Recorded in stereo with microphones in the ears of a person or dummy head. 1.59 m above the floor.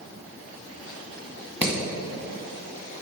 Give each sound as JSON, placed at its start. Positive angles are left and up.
{"t": 1.6, "sound": "hammering", "side_deg": -5, "distance_m": 1.9}